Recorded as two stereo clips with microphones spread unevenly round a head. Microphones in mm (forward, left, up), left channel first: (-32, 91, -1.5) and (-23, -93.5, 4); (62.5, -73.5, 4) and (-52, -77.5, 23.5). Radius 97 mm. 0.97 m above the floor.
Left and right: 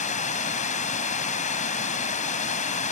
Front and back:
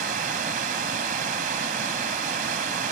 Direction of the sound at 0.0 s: 145° left.